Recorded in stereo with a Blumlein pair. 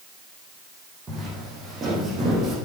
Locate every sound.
1.1 s footsteps: 15° right, 5 m; by 2.6 s 25° right, 5 m